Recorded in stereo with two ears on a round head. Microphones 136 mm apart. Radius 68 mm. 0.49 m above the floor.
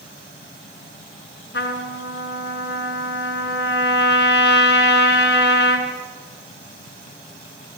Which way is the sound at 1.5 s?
75° left (ahead or behind).